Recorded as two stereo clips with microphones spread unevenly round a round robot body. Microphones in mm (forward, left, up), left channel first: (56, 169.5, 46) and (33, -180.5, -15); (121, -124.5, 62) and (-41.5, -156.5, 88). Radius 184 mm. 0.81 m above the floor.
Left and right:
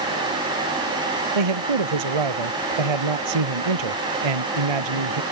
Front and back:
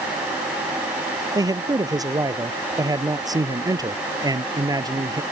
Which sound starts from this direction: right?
A man speaking, at 1.4 s.